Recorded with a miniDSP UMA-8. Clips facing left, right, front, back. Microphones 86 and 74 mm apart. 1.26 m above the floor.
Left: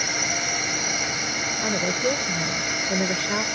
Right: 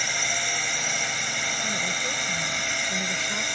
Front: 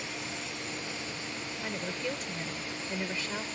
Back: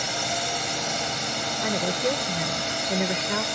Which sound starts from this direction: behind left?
A woman speaking, at 1.6 s.